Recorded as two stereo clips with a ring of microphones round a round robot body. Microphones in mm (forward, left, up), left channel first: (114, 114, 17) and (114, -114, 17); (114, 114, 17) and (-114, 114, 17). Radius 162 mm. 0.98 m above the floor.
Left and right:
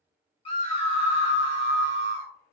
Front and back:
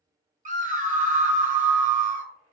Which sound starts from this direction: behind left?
A scream, at 0.5 s.